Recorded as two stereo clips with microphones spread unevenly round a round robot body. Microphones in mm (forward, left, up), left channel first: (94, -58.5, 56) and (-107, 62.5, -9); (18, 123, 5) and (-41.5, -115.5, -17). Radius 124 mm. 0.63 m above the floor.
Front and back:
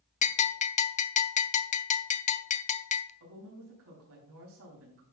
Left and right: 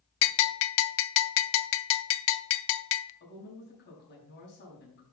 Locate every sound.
0.2 s a bell: 35° left, 0.5 m
3.2 s a woman speaking: 125° left, 4 m